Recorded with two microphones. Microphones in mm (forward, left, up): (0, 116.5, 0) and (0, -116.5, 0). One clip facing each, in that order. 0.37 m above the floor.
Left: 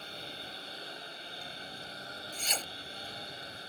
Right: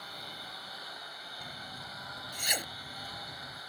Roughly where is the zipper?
Centre.